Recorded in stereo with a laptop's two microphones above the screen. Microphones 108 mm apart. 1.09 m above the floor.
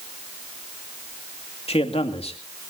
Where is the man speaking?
65° left (ahead or behind), 2.5 m.